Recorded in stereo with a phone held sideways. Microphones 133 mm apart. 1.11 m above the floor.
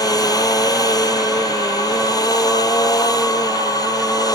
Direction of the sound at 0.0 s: 25° left (ahead or behind).